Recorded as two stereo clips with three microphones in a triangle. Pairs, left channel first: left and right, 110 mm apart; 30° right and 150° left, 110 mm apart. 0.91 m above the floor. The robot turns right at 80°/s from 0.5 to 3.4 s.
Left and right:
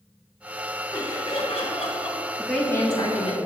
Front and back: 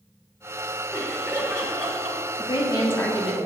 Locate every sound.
0.9 s laughter: 15° left, 2.0 m; by 2.2 s 115° left, 2.0 m
2.4 s a woman speaking: 5° right, 1.6 m; by 3.4 s 75° left, 1.6 m